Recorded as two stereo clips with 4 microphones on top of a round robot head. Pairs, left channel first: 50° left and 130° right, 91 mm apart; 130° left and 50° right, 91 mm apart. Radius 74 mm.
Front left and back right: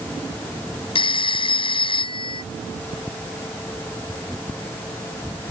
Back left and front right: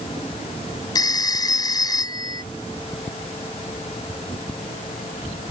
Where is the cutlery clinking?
No cutlery clinking in this recording.